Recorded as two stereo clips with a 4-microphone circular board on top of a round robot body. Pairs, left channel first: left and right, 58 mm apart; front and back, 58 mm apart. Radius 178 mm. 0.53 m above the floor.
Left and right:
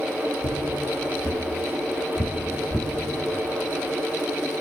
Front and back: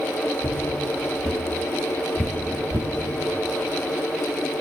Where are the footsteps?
85° left, 1.7 m; by 2.9 s 135° right, 0.5 m.